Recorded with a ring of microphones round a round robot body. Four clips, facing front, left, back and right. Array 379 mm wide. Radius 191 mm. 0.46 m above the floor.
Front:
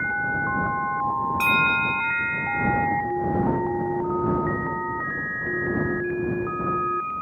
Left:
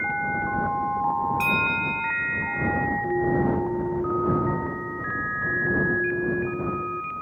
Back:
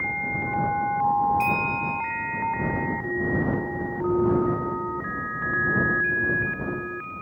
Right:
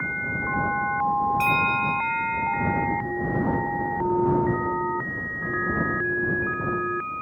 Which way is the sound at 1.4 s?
Straight ahead.